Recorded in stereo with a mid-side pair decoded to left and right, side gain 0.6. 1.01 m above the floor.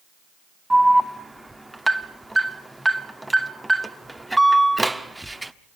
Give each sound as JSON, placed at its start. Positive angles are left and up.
{"t": 0.7, "sound": "an alarm", "azimuth_deg": -5, "distance_m": 1.2}